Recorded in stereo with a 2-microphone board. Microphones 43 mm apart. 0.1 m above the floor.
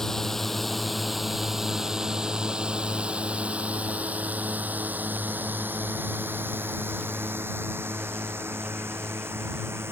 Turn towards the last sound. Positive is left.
turn(degrees=-65)  # may be behind; listen again after turning